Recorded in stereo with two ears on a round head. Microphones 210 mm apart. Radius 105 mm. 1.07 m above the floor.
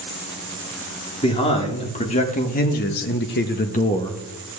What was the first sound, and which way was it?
A man speaking, 25° left (ahead or behind).